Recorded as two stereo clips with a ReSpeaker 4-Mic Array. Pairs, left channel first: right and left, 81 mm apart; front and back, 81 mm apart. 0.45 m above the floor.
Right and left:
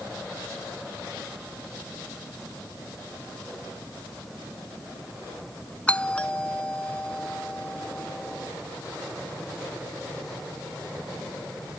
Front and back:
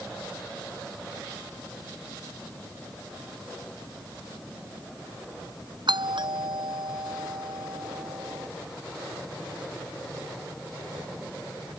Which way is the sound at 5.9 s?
165° right.